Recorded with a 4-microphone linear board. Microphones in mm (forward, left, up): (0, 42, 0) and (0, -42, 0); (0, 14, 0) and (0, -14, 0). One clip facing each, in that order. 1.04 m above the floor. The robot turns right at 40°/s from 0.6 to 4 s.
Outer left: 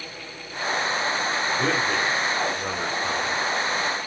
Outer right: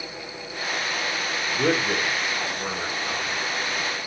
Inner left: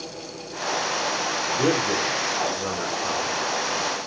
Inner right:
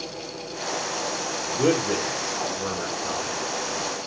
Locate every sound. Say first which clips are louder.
1.5 s a man speaking: outer right 3 dB, inner right 1 dB; 30° right, 3 m; by 3.4 s 45° left, 3 m